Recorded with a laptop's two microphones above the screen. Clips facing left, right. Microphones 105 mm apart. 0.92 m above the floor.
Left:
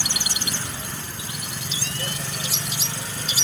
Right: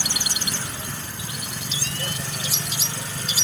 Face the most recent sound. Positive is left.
No sound to turn to.